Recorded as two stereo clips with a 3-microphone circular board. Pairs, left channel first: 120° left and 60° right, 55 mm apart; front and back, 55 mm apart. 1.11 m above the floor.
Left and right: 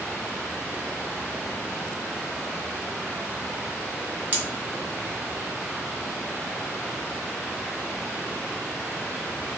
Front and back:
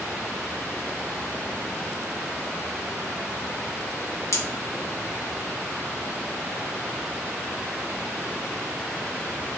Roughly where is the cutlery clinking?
Ahead.